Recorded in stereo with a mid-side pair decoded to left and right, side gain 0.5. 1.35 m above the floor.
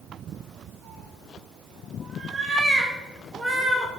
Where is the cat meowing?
45° right, 2.5 m; by 3.9 s 5° right, 2.0 m.